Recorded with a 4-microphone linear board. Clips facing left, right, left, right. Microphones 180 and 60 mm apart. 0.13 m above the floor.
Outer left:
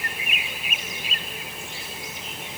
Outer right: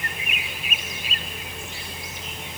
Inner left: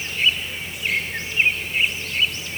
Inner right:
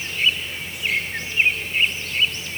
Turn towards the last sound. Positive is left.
No sound to turn to.